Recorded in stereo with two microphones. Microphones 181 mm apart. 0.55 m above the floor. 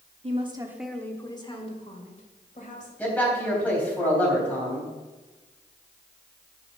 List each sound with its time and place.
0.2 s a woman speaking: 40° right (ahead or behind), 1.1 m; by 2.9 s 50° left (ahead or behind), 3 m
3.0 s a man speaking: 10° left (ahead or behind), 3.5 m